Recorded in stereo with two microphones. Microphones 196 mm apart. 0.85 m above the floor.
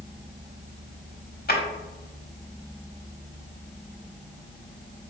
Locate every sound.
1.5 s a drawer: 50° left (ahead or behind), 1.0 m